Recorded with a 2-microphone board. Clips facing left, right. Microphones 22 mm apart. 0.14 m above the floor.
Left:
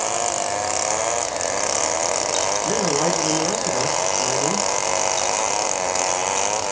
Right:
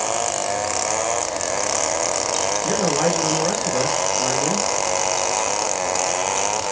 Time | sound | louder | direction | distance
2.6 | a man speaking | right 2 dB | 65° right (ahead or behind) | 3.5 m